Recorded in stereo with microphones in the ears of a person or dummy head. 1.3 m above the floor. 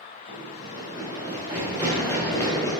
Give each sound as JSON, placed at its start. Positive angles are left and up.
{"t": 0.3, "sound": "running footsteps", "side_deg": -25, "distance_m": 1.9}